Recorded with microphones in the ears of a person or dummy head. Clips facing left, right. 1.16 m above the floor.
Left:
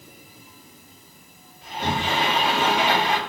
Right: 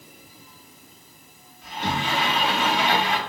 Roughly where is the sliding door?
Left.